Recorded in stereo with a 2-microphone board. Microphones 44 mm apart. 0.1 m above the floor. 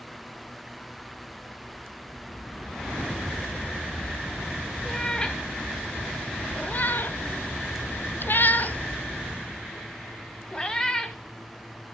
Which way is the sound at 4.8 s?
15° left (ahead or behind).